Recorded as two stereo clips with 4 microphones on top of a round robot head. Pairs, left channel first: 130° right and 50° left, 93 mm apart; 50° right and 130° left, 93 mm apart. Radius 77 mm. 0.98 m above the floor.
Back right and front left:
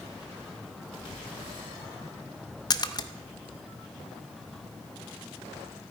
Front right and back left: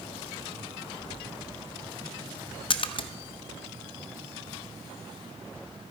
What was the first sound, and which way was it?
A splash, 80° right.